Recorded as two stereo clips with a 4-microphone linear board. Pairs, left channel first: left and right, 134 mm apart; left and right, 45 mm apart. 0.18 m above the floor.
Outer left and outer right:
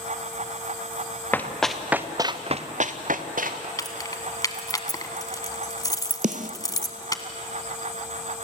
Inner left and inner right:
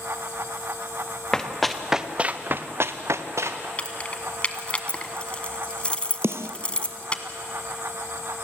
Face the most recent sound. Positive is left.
turn(degrees=-75)  # may be behind; listen again after turning